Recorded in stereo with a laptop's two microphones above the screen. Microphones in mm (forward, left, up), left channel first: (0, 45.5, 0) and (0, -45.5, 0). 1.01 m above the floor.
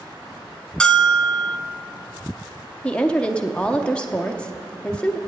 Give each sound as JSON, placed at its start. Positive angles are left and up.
{"t": 0.8, "sound": "a bell", "side_deg": 10, "distance_m": 0.5}
{"t": 2.8, "sound": "a woman speaking", "side_deg": 10, "distance_m": 0.5}